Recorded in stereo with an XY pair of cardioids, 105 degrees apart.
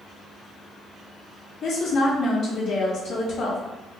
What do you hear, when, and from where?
1.6 s a woman speaking: 65° left, 1.7 m